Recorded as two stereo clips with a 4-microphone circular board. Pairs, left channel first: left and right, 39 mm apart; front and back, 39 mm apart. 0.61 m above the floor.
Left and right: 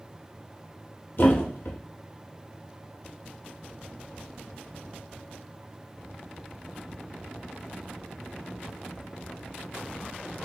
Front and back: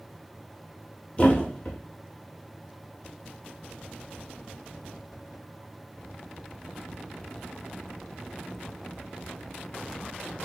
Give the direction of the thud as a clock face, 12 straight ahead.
10 o'clock.